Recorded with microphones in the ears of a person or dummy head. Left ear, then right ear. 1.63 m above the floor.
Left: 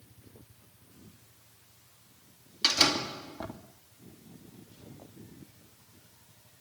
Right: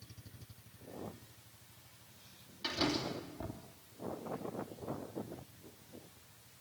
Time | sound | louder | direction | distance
2.6 | a door slam | left 10 dB | 70° left (ahead or behind) | 3 m